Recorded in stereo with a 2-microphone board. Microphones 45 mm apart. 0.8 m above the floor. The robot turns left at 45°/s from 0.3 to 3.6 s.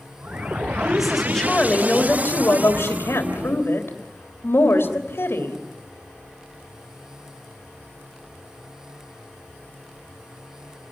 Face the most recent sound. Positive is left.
turn(degrees=70)